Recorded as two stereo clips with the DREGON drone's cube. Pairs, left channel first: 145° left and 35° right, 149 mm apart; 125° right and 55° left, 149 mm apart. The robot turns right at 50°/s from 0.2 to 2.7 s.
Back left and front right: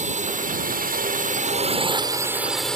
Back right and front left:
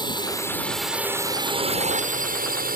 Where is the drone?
65° right; by 2.8 s 60° left.